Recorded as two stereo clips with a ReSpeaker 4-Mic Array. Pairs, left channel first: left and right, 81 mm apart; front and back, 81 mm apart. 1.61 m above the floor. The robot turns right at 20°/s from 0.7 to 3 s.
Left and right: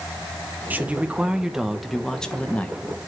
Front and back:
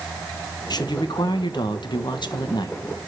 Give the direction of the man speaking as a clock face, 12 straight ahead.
1 o'clock.